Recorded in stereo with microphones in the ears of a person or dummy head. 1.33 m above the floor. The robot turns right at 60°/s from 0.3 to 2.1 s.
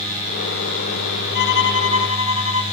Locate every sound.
1.4 s a violin: 60° left, 0.8 m; by 2.6 s 105° left, 0.8 m